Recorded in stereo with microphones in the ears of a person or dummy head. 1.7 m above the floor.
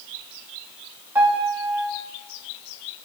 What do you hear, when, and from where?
1.1 s a piano: 10° right (ahead or behind), 3 m